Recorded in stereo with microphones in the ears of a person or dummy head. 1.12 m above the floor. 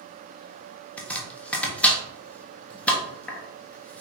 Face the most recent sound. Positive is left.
turn(degrees=10)  # may be behind; listen again after turning